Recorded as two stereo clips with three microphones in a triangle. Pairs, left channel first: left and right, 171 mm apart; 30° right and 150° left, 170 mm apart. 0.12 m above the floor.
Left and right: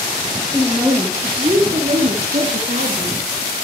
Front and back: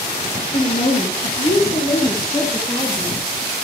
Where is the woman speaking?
Straight ahead, 2.0 m; by 3.2 s 115° right, 2.5 m.